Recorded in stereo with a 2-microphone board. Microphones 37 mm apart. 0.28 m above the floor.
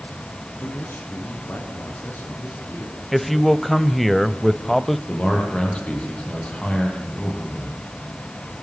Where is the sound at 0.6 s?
60° left (ahead or behind), 5.5 m; by 3.0 s 70° left (ahead or behind), 6 m.